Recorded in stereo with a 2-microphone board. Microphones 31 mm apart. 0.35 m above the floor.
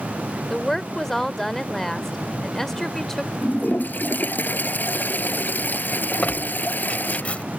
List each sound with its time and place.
0.5 s a woman speaking: 15° left (ahead or behind)
3.4 s a toilet flushing: 85° left
6.2 s tearing paper: 50° left (ahead or behind)